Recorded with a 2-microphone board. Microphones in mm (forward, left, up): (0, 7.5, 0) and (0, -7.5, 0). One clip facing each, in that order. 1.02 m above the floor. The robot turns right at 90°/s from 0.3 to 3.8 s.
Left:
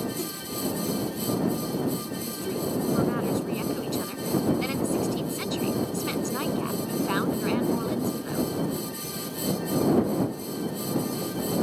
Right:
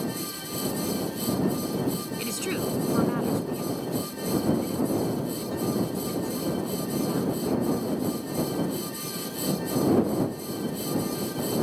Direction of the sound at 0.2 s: 55° left (ahead or behind).